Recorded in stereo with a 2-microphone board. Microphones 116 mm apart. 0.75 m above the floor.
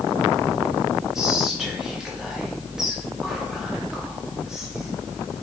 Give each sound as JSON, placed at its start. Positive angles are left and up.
{"t": 1.1, "sound": "whispering", "side_deg": -5, "distance_m": 1.3}